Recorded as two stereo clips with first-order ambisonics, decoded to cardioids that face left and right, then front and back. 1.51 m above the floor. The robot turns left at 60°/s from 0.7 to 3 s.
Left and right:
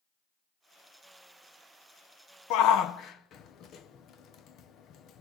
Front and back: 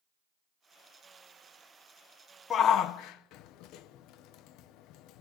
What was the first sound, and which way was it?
A shout, 65° left.